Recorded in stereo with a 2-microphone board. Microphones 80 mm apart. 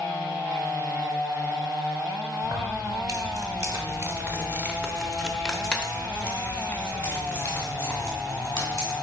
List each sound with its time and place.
2.4 s keys jangling: 50° right (ahead or behind), 1.8 m; by 8.9 s 35° left (ahead or behind), 3 m